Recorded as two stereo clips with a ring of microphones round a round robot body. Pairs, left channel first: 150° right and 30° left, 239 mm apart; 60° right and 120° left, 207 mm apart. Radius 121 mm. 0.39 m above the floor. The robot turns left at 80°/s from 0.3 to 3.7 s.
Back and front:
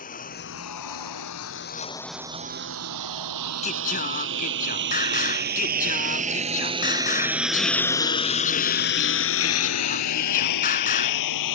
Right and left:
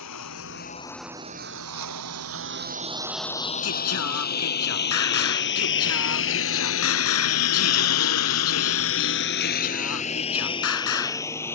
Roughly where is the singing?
Right.